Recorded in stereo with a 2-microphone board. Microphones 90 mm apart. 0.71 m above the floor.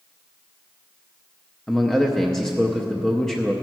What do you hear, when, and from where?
1.7 s a man speaking: 5° left (ahead or behind), 0.5 m